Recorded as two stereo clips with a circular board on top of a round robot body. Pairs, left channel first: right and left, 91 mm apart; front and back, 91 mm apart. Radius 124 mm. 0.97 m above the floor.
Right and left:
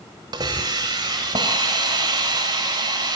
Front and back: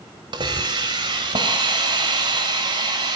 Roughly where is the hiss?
Behind left.